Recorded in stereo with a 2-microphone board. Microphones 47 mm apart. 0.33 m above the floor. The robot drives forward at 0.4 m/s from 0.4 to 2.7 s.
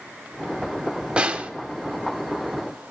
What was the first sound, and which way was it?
A snare drum, 20° right (ahead or behind).